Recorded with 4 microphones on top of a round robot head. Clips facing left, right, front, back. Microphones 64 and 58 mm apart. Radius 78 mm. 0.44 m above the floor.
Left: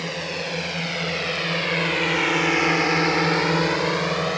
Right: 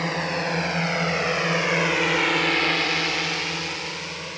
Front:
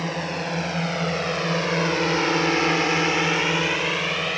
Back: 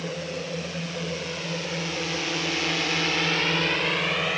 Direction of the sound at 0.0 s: 40° right.